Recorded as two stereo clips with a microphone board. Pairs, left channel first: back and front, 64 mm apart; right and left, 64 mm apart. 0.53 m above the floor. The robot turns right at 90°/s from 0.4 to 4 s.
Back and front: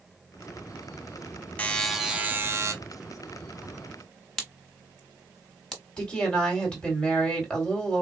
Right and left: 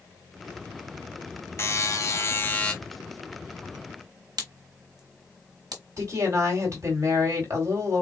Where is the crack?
100° left, 1.1 m.